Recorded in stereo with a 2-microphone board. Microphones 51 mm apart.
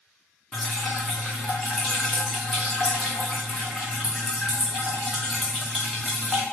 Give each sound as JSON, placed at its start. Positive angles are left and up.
{"t": 0.5, "sound": "dripping", "side_deg": 0, "distance_m": 2.0}